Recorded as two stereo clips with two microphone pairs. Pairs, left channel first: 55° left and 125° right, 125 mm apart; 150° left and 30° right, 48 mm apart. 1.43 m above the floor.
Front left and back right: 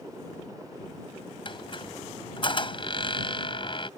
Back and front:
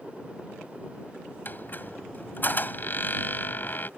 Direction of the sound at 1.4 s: 100° left.